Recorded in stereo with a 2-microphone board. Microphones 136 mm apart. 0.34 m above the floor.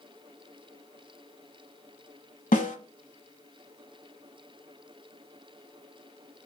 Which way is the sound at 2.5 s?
80° left.